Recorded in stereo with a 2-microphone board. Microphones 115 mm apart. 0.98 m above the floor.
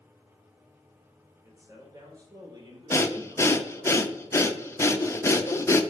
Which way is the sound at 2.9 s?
25° left (ahead or behind).